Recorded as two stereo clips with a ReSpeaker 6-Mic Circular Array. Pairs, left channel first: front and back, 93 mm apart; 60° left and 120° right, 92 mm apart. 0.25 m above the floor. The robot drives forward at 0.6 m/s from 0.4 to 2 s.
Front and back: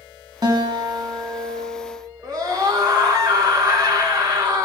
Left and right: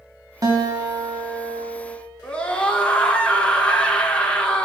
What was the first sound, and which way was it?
A guitar, 155° right.